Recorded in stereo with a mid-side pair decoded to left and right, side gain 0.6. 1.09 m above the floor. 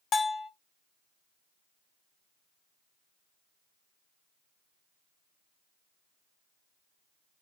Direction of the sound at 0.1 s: 35° left.